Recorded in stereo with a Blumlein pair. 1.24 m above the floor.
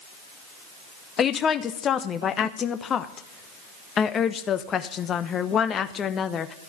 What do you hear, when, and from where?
1.2 s a woman speaking: 25° left, 0.9 m